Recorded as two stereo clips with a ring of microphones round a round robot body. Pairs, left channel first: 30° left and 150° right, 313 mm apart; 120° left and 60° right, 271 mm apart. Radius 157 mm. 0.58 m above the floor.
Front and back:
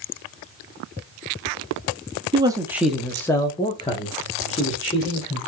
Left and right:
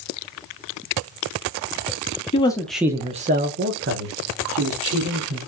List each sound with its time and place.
2.3 s a man speaking: 155° left, 0.7 m; by 5.4 s 35° right, 1.7 m